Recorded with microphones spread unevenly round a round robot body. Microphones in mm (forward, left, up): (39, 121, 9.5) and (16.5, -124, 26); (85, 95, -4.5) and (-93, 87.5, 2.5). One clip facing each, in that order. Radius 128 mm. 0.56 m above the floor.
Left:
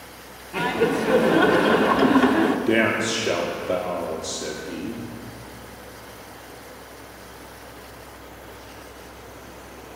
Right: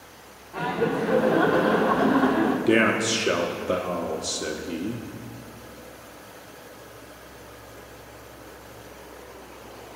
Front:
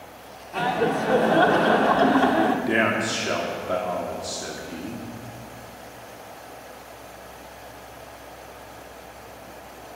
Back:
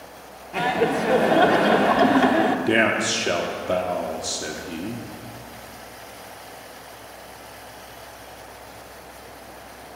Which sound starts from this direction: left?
Laughter, at 0.5 s.